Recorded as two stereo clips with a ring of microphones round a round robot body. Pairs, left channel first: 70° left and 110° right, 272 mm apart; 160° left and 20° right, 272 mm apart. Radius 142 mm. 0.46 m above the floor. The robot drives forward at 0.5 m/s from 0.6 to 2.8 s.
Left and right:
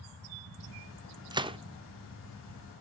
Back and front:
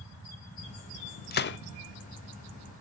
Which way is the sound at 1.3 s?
175° right.